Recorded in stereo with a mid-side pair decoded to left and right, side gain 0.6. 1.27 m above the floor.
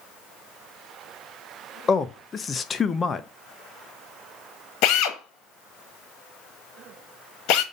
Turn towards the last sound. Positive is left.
turn(degrees=70)